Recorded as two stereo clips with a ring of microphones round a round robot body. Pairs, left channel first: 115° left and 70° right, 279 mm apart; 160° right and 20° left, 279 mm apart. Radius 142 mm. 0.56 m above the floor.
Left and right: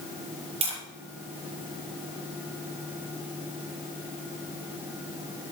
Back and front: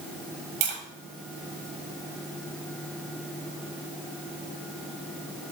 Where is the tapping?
5° left, 5.5 m.